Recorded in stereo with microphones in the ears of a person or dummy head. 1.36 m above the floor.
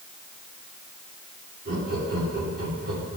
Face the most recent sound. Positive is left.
turn(degrees=-55)  # may be behind; listen again after turning